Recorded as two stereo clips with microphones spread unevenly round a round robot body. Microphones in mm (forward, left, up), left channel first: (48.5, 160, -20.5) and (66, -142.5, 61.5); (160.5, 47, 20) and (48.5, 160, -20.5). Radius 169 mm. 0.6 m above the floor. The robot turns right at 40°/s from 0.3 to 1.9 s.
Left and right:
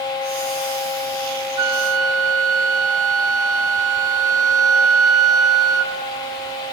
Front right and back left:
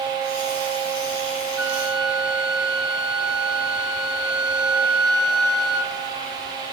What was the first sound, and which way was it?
A flute, 60° right.